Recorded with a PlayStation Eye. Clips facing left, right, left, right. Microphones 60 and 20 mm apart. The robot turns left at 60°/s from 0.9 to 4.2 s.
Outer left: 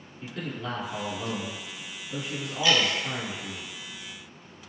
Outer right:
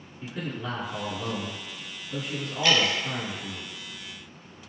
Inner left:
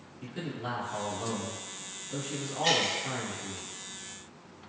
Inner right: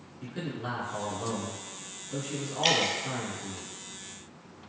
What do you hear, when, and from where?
0.2 s a man speaking: 20° right (ahead or behind), 1.2 m; by 3.6 s 20° left (ahead or behind), 1.2 m
2.6 s dripping: 65° right (ahead or behind), 0.7 m